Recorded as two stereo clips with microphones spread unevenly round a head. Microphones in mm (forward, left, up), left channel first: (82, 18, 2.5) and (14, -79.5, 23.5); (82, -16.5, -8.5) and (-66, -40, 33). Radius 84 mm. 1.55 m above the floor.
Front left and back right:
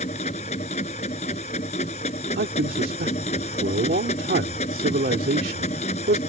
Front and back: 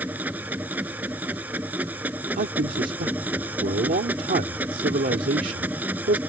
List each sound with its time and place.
0.0 s a machine running: 110° left
2.4 s a man speaking: 135° right